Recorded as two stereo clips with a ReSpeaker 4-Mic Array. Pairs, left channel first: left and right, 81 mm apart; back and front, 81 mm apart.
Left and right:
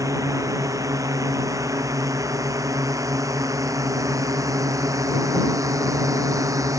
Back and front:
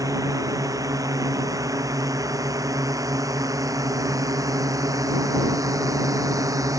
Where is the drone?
45° right.